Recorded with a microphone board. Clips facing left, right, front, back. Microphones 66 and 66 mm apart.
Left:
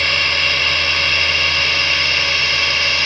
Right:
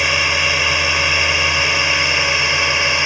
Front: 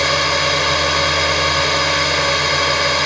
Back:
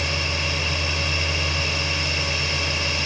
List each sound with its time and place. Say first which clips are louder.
0.0 s a drone: right 1 dB, front 10 dB; 15° right; by 3.1 s 20° right